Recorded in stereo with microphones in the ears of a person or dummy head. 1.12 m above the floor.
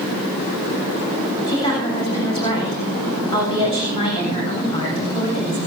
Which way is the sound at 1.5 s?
25° left (ahead or behind).